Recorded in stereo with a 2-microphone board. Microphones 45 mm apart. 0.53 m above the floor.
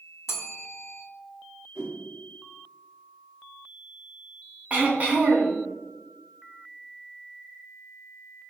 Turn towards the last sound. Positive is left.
turn(degrees=-30)  # may be behind; listen again after turning